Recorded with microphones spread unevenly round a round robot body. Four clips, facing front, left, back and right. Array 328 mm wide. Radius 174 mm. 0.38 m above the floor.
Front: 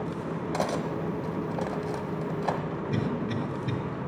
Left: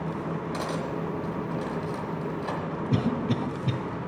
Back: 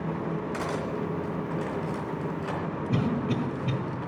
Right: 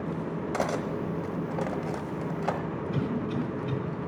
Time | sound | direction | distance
0.5 | cutlery clinking | 50° right | 1.2 m
2.9 | a cough | 95° left | 1.7 m